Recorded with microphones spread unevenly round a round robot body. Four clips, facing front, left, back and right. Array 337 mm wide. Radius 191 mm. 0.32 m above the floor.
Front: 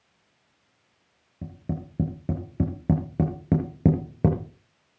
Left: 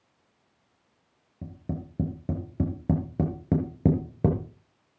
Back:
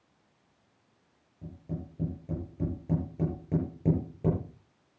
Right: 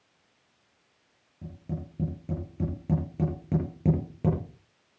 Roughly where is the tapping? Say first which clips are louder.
Left 2 dB, front 6 dB; ahead.